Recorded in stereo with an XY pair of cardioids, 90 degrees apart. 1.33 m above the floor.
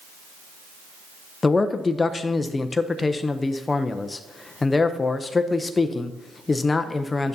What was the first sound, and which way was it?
A man speaking, 30° left.